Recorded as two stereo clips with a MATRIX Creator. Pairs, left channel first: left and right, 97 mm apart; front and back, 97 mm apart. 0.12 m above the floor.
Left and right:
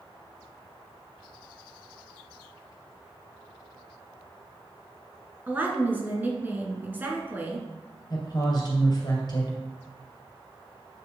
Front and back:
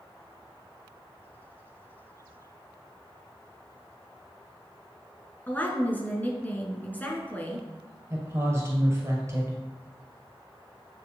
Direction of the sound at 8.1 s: 125° left.